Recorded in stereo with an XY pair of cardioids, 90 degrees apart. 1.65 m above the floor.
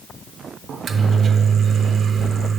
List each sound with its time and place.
0.7 s a microwave: 70° right, 0.6 m